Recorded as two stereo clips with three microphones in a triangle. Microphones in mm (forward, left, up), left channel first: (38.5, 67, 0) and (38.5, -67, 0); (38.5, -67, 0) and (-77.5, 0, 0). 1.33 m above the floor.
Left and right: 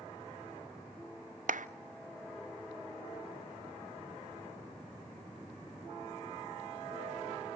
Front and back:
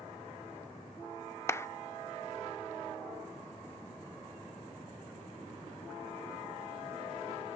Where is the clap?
100° right, 0.5 m.